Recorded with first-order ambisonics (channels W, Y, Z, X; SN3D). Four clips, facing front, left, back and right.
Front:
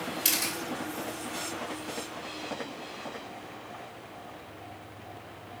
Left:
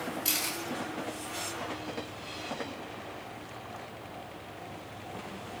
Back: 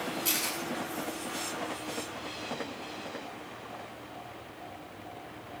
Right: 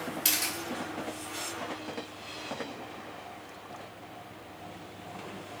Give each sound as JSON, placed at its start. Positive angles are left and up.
{"t": 0.2, "sound": "a camera shutter", "azimuth_deg": -45, "distance_m": 3.5}